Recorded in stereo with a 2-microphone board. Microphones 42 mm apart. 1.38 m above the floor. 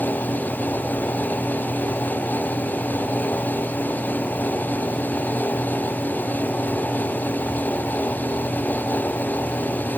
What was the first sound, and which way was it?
Only background noise.